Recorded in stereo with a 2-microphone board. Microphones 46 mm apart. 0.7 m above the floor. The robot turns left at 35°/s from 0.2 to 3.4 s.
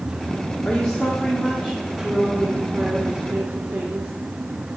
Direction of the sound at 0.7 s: 55° left.